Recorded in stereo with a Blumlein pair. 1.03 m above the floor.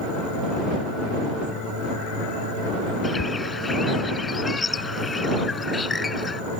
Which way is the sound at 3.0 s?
15° left.